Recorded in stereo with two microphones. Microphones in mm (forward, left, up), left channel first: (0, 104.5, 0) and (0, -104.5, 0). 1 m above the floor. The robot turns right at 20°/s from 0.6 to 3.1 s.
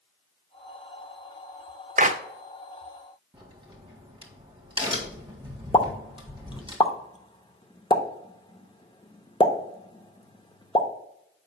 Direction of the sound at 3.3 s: 20° right (ahead or behind).